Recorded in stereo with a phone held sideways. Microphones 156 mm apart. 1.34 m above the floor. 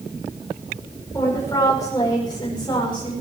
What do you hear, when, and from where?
1.1 s a woman speaking: 20° left (ahead or behind), 5.5 m; by 3.1 s 30° left (ahead or behind), 5 m